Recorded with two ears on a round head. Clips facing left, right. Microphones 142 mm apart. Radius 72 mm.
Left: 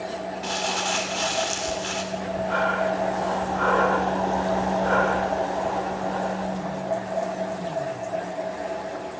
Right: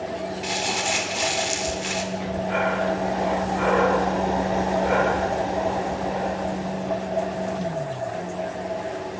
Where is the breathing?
15° right (ahead or behind), 3 m.